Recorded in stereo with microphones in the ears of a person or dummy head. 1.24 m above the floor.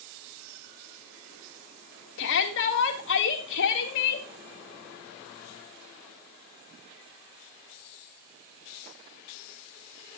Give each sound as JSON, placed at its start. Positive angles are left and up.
{"t": 2.2, "sound": "a shout", "side_deg": 70, "distance_m": 2.0}